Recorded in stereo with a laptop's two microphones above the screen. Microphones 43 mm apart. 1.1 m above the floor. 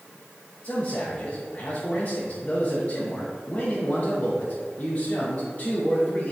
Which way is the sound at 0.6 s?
35° left (ahead or behind).